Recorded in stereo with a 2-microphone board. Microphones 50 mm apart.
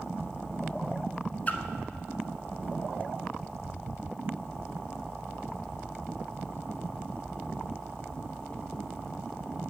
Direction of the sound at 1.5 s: 35° left (ahead or behind).